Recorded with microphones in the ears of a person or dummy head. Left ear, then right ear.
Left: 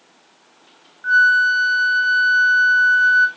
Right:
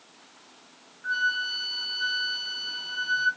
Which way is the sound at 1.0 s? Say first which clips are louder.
Left 13 dB; 40° left (ahead or behind).